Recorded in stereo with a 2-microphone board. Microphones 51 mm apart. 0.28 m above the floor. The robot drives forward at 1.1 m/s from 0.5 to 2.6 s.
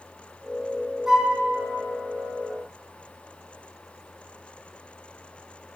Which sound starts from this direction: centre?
A flute, at 1.1 s.